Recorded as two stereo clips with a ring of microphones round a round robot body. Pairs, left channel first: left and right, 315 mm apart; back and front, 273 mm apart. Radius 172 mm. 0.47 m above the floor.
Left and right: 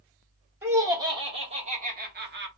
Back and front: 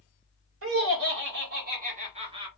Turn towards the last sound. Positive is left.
turn(degrees=-65)